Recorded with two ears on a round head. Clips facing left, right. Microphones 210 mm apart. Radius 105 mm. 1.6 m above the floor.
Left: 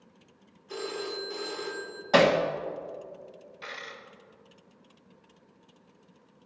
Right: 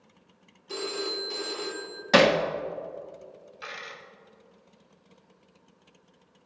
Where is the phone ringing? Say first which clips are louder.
Right 2 dB; 50° right (ahead or behind), 2.5 m.